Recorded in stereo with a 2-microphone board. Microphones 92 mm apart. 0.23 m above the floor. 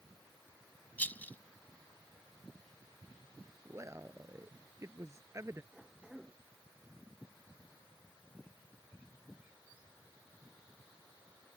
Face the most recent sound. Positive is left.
turn(degrees=-5)  # may be behind; listen again after turning